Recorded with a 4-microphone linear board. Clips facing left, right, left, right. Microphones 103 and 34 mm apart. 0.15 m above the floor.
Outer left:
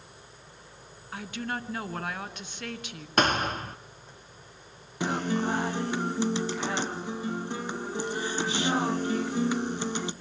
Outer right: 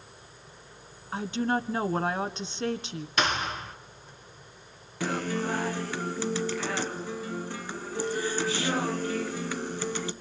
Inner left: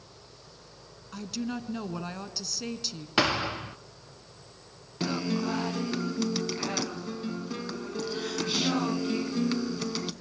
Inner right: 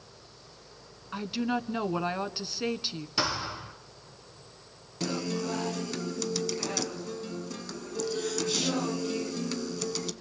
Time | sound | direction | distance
1.1 | a woman speaking | 30° right (ahead or behind) | 1.3 m
3.2 | a thud | 45° left (ahead or behind) | 1.1 m
5.0 | a guitar | 20° left (ahead or behind) | 1.5 m